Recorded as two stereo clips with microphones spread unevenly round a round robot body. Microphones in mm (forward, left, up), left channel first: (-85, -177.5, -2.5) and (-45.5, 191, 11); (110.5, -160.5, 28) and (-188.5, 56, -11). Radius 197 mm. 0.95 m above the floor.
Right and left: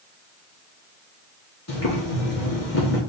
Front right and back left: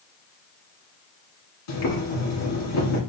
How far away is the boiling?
About 1.9 m.